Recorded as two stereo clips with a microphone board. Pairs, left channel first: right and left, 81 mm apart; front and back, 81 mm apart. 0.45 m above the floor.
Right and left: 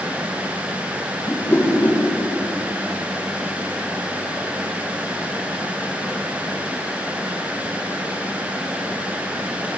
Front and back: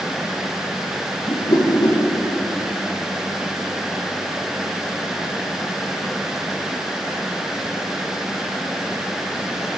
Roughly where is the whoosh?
Ahead right.